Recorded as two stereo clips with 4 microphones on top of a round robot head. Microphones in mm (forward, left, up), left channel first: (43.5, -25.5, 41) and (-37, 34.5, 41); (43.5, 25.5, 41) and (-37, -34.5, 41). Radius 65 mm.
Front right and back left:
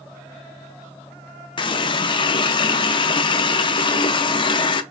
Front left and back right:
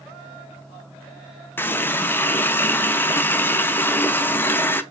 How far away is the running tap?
About 0.5 m.